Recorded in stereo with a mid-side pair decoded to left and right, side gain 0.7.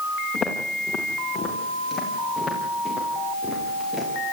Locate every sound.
0.3 s footsteps: 30° left, 8.5 m; by 4.3 s 10° left, 11 m